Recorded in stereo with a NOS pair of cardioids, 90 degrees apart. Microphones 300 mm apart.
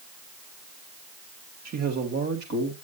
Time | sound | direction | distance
1.6 | a man speaking | 60° right | 2.5 m